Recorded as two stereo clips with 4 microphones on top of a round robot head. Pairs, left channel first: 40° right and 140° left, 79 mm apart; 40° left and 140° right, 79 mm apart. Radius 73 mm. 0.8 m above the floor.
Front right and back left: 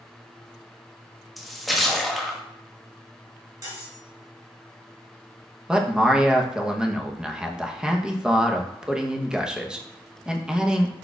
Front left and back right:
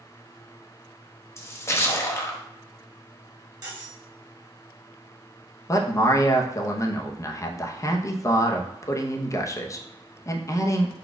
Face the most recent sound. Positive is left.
turn(degrees=60)